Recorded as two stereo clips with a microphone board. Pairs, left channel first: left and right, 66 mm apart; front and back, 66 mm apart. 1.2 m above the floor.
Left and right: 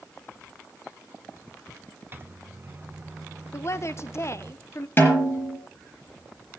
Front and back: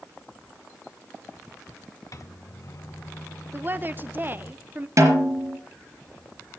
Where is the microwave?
35° right, 1.0 m.